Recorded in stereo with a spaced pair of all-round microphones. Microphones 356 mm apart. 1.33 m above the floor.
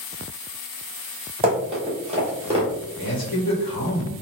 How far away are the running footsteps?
About 1.8 m.